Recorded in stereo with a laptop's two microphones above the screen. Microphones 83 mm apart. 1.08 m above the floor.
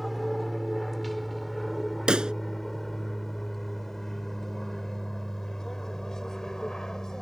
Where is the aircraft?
Centre (ahead or behind); by 7.2 s 5° left (ahead or behind).